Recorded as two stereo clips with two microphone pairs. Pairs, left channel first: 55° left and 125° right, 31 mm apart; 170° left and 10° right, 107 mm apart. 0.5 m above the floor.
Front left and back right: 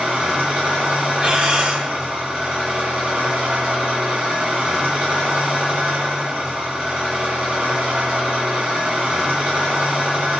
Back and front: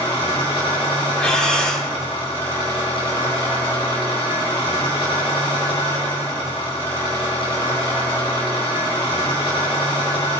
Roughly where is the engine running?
Behind.